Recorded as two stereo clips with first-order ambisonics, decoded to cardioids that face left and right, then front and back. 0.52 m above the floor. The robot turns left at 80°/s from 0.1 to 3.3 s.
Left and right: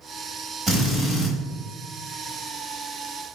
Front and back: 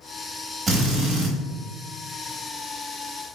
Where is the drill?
125° right, 1.3 m; by 1.3 s straight behind, 1.3 m.